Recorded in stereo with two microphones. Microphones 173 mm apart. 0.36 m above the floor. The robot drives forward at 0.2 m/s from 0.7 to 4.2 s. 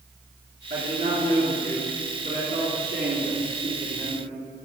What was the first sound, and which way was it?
A man speaking, 60° right (ahead or behind).